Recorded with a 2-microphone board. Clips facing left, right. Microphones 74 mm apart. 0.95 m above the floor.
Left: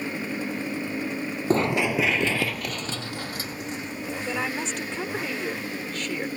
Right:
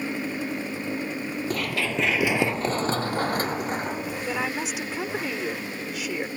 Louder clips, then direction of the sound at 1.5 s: Left 7 dB; 30° left (ahead or behind).